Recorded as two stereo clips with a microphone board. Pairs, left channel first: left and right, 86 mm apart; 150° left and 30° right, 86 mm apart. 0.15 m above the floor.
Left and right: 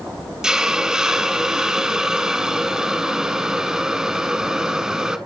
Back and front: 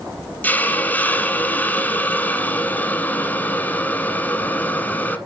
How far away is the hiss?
About 0.8 m.